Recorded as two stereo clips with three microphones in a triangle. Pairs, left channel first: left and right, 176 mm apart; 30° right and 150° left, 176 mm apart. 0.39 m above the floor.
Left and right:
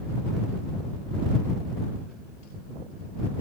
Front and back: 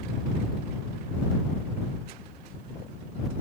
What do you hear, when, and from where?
Only background noise.